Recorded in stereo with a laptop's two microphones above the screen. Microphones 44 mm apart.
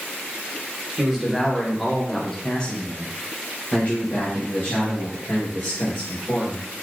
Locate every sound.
1.0 s a man speaking: 10° right (ahead or behind), 1.2 m; by 6.7 s 45° left (ahead or behind), 2 m